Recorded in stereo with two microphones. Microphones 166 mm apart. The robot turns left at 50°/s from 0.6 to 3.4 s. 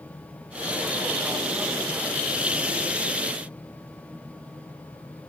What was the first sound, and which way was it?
Only background noise.